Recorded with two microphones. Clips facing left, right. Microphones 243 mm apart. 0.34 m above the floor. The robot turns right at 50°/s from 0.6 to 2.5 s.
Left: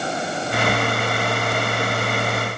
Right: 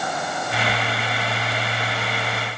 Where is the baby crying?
No baby crying in this recording.